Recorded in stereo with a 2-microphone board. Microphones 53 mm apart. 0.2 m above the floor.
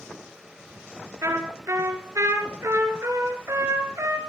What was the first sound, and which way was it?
A trumpet, 70° right (ahead or behind).